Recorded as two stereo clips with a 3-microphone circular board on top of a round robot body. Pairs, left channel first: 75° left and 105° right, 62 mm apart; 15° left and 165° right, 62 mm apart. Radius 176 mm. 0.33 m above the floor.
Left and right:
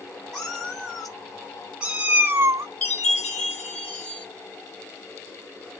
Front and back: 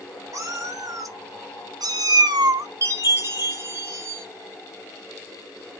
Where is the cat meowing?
155° left, 1.8 m; by 2.7 s 140° right, 0.6 m.